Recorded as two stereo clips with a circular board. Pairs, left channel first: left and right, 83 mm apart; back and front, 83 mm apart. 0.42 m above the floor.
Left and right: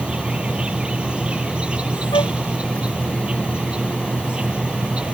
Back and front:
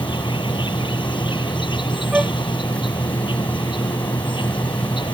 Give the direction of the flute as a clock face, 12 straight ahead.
9 o'clock.